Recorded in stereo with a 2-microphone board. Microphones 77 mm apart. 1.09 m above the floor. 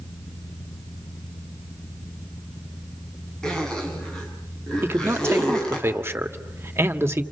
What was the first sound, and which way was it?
A zipper, 10° left (ahead or behind).